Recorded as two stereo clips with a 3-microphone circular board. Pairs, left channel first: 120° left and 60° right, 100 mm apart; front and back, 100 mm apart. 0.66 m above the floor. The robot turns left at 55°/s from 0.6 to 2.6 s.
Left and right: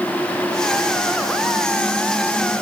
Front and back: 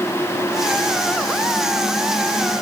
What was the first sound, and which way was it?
Only background noise.